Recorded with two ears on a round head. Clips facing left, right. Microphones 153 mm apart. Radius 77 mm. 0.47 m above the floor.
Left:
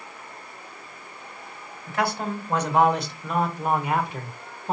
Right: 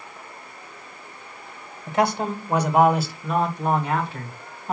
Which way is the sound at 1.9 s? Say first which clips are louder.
Right 4 dB; 20° right (ahead or behind).